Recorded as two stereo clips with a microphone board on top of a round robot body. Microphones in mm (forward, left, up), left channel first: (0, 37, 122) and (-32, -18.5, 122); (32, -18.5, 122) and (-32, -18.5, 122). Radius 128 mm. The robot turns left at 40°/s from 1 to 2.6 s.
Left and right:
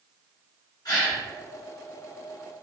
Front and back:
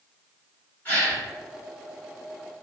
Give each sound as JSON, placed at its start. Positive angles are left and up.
{"t": 0.8, "sound": "a gasp", "azimuth_deg": 65, "distance_m": 1.5}